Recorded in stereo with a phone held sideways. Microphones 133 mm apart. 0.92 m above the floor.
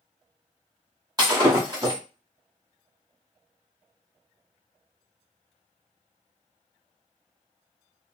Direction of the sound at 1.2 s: 30° right (ahead or behind).